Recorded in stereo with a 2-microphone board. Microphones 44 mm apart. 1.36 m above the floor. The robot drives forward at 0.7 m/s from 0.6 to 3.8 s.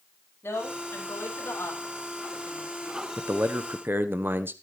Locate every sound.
0.4 s a woman speaking: 55° left (ahead or behind), 5.5 m; by 3.0 s 75° left (ahead or behind), 4.5 m
3.2 s a man speaking: 60° right (ahead or behind), 0.9 m; by 4.5 s 50° right (ahead or behind), 1.0 m